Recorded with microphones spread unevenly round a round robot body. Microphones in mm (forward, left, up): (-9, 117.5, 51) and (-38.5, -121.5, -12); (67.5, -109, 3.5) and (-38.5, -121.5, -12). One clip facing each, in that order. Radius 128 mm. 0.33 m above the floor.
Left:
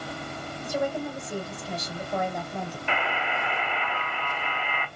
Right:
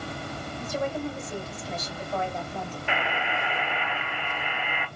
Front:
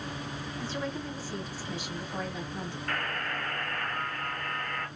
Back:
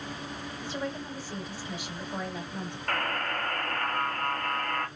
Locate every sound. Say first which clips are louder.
0.6 s a woman speaking: left 1 dB, even; straight behind, 1.5 m
2.9 s a buzzer: right 1 dB, back 5 dB; 170° right, 1.0 m